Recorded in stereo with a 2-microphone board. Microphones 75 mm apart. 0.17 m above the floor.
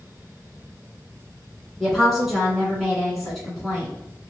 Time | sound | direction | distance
1.8 | a woman speaking | 5° right (ahead or behind) | 1.4 m